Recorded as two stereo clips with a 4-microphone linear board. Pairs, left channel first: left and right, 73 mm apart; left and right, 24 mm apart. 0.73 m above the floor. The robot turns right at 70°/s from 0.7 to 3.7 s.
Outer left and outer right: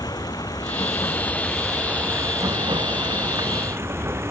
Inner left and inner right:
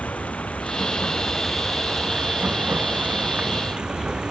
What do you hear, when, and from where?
0.0 s running water: 115° left; by 4.3 s 35° right